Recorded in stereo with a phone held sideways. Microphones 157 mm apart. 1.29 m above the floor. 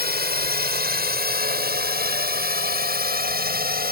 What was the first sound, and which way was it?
A drone, 80° right.